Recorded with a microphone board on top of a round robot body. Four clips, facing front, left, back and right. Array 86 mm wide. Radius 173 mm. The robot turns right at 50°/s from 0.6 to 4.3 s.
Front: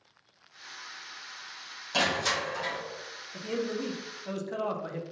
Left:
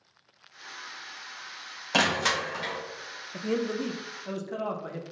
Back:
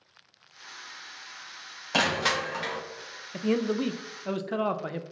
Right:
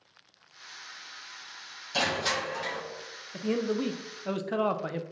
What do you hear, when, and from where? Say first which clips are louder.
1.9 s crushing: left 3 dB, back 2 dB; 120° left, 0.7 m; by 2.8 s 165° left, 0.7 m
3.3 s a man speaking: even, back 6 dB; 175° left, 0.5 m; by 5.0 s 135° right, 0.5 m